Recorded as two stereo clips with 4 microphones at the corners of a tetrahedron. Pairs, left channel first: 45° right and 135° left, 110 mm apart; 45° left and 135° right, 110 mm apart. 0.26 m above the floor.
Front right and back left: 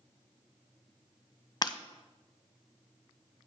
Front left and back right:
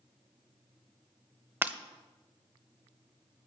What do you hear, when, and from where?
1.6 s breaking glass: 70° right, 0.6 m